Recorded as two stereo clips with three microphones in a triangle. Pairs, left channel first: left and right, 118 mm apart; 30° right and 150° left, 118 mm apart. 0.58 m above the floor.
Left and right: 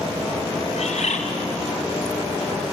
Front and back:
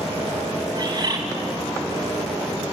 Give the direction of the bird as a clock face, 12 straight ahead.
9 o'clock.